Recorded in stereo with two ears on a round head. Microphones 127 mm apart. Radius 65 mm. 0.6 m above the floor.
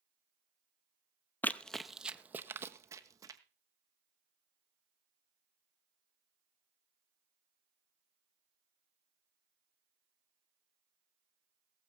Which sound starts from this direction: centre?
Running footsteps, at 1.4 s.